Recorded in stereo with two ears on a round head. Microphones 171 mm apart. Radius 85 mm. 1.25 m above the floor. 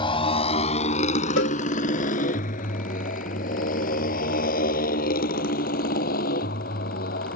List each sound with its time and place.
0.0 s a motorcycle: 25° left (ahead or behind); by 7.4 s 50° left (ahead or behind)
1.4 s a cowbell: 70° left (ahead or behind)